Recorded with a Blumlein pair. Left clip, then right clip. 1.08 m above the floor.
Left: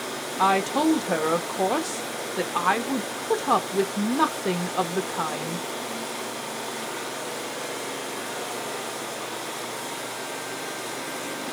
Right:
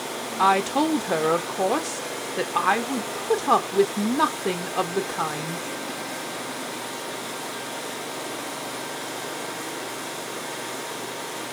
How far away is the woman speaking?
About 0.9 m.